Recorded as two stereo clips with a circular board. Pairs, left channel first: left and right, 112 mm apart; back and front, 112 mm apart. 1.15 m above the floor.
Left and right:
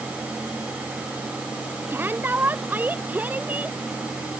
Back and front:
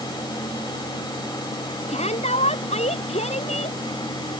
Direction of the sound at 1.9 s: 160° right.